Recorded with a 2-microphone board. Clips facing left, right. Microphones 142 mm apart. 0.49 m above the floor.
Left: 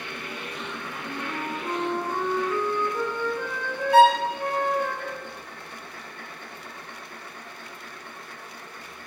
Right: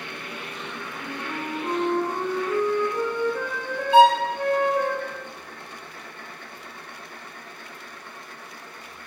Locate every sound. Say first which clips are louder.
1.0 s a flute: even; 55° right (ahead or behind), 0.6 m
3.9 s a violin: right 1 dB; 25° right (ahead or behind), 0.6 m